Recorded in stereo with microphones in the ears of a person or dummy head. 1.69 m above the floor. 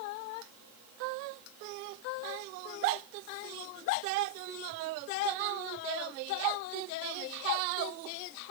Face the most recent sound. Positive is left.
No sound to turn to.